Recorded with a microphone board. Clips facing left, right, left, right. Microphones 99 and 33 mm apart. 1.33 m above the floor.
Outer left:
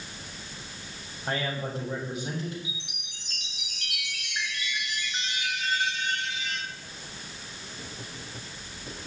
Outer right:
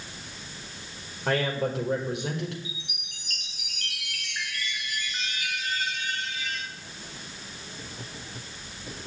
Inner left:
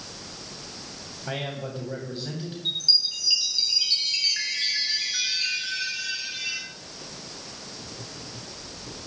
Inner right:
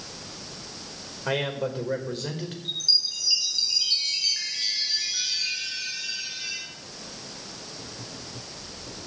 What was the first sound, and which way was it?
A man speaking, 75° right (ahead or behind).